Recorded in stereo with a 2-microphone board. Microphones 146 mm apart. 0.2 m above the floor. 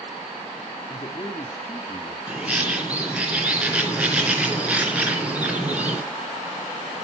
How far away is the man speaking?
About 3 m.